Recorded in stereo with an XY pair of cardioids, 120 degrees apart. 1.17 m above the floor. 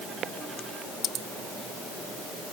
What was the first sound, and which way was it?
Only background noise.